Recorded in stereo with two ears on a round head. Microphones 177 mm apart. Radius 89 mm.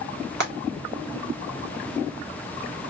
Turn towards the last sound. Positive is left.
turn(degrees=-55)  # may be behind; listen again after turning